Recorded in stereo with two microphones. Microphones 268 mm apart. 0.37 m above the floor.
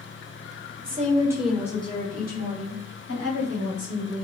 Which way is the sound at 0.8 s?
35° right (ahead or behind).